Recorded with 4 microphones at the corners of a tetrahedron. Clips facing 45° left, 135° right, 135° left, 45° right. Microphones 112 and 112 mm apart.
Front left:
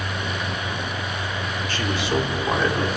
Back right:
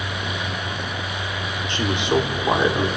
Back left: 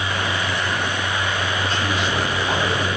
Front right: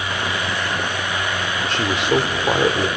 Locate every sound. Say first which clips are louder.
1.7 s a man speaking: back right 4 dB, front right 4 dB; 65° right, 2.5 m